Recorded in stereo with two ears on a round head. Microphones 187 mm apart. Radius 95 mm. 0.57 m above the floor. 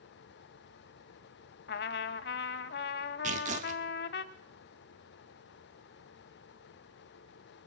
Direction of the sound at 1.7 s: 50° left (ahead or behind).